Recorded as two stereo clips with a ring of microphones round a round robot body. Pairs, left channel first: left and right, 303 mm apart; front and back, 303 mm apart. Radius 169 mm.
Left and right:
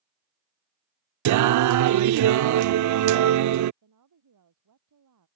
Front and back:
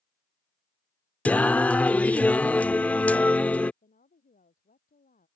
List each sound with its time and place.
1.2 s singing: 85° right
3.8 s a woman speaking: 65° right